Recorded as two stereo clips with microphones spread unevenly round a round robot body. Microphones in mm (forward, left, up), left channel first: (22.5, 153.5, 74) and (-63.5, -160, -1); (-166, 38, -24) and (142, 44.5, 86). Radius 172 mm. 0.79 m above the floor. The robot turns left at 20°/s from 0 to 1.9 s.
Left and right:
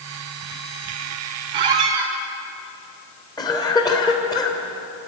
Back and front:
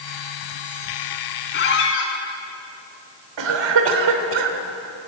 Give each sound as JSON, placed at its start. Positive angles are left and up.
{"t": 1.5, "sound": "a squeak", "azimuth_deg": -115, "distance_m": 3.0}
{"t": 3.4, "sound": "a cough", "azimuth_deg": -5, "distance_m": 3.0}